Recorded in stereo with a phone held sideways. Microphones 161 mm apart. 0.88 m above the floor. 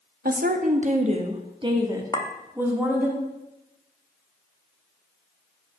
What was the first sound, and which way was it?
A woman speaking, 65° right (ahead or behind).